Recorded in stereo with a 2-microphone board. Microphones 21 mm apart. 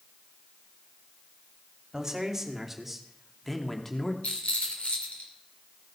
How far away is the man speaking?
About 2.0 m.